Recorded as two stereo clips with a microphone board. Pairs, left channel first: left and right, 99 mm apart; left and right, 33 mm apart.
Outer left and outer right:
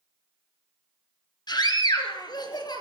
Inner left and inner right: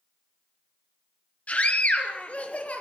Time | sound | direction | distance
1.5 | a scream | 45° left (ahead or behind) | 4.5 m